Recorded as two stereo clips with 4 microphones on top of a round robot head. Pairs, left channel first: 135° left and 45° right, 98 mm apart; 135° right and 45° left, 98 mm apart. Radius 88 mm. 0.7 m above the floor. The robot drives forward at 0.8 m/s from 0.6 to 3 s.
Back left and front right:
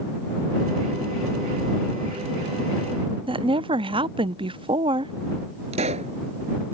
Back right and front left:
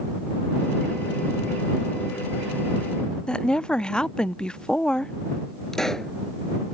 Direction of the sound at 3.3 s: 55° right.